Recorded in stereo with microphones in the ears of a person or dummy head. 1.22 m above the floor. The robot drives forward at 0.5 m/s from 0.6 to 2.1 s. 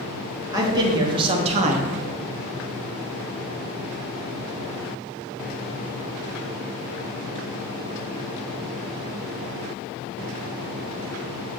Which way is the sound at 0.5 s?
20° right (ahead or behind).